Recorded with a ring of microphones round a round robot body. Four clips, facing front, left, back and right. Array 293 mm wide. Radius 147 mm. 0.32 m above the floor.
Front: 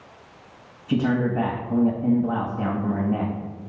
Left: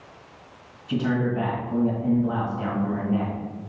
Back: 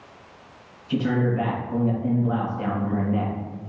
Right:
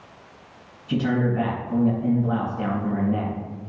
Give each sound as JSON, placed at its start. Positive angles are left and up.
{"t": 0.9, "sound": "a man speaking", "azimuth_deg": -15, "distance_m": 1.7}